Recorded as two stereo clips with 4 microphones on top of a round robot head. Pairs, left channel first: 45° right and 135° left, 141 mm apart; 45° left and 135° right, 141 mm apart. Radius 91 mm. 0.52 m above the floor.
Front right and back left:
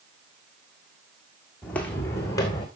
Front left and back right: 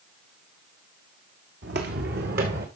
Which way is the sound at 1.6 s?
130° right.